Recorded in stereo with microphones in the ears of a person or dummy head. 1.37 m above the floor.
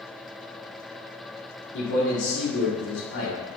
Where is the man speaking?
70° left (ahead or behind), 1.8 m.